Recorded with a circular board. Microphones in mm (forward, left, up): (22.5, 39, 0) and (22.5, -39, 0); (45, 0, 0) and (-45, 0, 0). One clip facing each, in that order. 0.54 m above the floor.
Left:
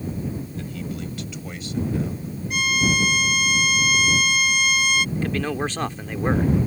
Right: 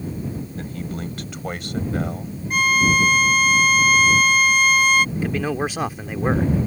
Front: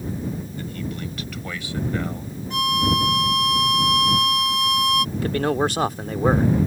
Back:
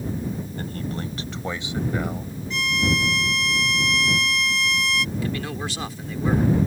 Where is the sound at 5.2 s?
10° right.